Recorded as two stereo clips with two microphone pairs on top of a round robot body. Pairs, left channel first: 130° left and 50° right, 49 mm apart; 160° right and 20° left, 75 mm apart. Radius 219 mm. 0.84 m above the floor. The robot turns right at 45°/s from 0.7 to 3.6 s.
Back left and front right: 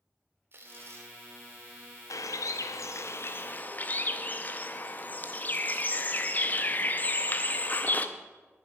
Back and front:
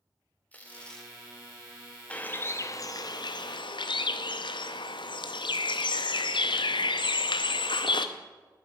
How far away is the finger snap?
No finger snap in this recording.